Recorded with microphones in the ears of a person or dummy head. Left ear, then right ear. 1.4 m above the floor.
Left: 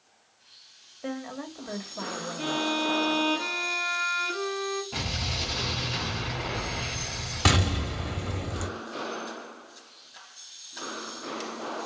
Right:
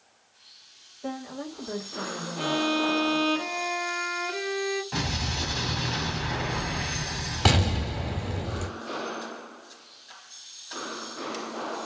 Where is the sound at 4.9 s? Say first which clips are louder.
Right 1 dB; 50° right (ahead or behind), 2.5 m.